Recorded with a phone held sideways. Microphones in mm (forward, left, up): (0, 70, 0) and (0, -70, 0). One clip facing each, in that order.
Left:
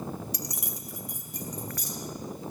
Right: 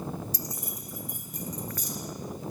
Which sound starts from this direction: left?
Keys jangling, at 0.3 s.